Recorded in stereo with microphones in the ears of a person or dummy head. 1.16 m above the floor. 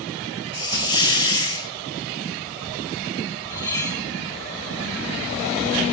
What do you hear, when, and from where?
0.5 s a hiss: 20° left (ahead or behind), 0.9 m
3.5 s cutlery clinking: 10° left (ahead or behind), 1.0 m